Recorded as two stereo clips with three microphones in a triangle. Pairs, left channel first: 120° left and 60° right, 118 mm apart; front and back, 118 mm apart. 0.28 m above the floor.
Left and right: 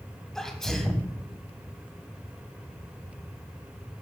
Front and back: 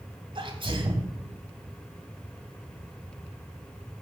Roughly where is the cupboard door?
I don't hear a cupboard door.